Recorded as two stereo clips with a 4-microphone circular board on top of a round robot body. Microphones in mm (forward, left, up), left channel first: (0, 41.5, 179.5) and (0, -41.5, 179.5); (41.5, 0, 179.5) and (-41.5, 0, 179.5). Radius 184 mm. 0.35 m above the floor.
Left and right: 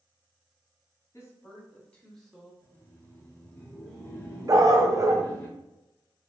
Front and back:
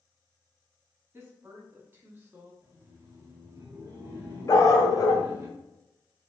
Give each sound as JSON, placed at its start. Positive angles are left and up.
{"t": 1.1, "sound": "a woman speaking", "azimuth_deg": 130, "distance_m": 1.5}
{"t": 2.6, "sound": "laughter", "azimuth_deg": 135, "distance_m": 1.3}
{"t": 4.5, "sound": "a dog barking", "azimuth_deg": -45, "distance_m": 0.6}